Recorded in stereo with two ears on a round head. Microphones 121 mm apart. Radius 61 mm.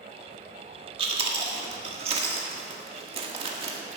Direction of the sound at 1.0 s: 45° right (ahead or behind).